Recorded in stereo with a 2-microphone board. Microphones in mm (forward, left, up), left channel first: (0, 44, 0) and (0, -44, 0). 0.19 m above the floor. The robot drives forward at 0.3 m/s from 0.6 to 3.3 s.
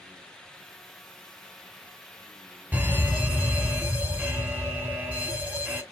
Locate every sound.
2.7 s an alarm: 20° right (ahead or behind), 1.1 m